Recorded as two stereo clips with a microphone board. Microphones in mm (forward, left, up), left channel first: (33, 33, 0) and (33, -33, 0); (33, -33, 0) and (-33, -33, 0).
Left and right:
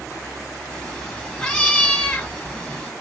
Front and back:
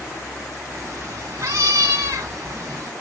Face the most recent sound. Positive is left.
turn(degrees=160)